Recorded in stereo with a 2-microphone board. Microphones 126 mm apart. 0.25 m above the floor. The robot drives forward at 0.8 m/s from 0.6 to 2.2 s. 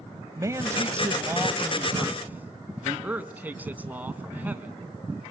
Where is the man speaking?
25° right (ahead or behind), 1.0 m; by 5.3 s 15° right (ahead or behind), 1.8 m.